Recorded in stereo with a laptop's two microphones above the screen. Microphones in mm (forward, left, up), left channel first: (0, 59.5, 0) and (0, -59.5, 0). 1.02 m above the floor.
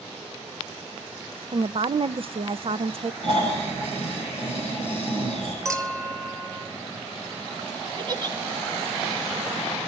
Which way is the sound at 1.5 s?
50° right (ahead or behind).